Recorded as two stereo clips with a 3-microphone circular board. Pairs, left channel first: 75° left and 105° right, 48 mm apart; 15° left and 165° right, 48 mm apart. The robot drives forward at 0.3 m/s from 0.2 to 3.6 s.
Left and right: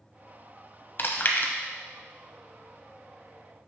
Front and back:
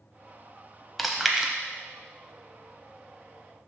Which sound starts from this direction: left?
Chewing, at 1.0 s.